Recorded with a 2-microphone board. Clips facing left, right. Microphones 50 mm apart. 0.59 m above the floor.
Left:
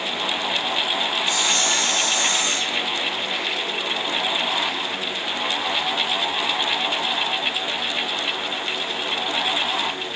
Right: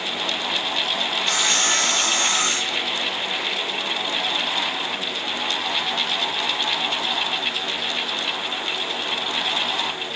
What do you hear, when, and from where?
1.3 s sawing: 65° right (ahead or behind), 9 m